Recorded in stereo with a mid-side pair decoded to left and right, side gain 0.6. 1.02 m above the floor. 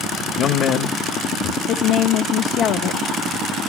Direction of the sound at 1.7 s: 60° left.